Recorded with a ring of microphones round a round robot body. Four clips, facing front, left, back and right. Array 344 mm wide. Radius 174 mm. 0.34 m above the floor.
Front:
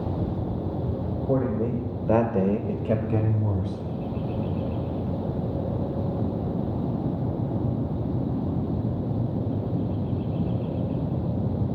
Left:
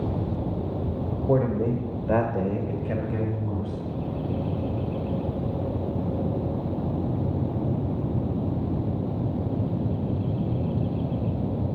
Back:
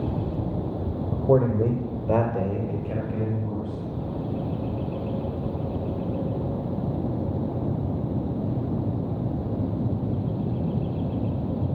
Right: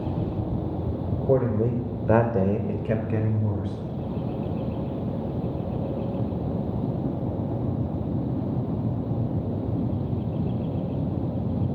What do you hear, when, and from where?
1.1 s a man speaking: 160° right, 1.9 m; by 3.8 s 20° right, 3 m